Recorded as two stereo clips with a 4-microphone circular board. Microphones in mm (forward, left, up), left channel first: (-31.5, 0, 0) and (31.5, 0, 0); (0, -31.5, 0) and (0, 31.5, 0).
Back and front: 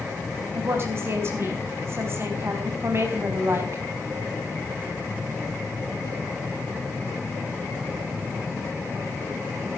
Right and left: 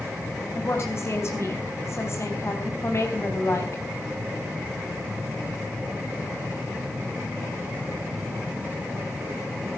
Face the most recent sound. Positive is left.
turn(degrees=-45)